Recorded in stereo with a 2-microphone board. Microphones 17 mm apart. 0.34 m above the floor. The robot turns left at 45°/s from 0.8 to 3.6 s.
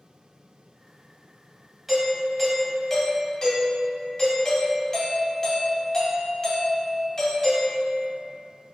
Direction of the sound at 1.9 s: 155° right.